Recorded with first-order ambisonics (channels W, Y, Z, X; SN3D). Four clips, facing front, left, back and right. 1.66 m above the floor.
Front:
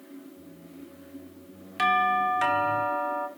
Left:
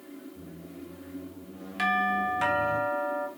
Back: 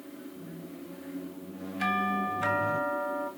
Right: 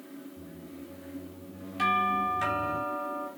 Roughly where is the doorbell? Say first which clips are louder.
Even, front 6 dB; ahead left.